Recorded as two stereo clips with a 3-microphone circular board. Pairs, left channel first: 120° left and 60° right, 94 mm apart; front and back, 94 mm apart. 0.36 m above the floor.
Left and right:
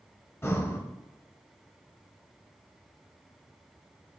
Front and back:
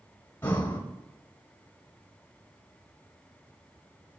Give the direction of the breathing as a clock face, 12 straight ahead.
10 o'clock.